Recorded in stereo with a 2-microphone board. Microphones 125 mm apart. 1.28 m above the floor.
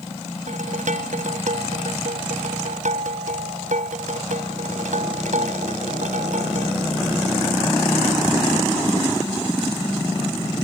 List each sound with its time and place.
0.5 s dishes clattering: 85° right